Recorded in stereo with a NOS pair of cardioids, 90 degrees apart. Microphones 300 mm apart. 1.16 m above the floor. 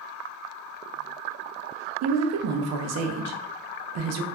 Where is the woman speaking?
60° right, 0.5 m.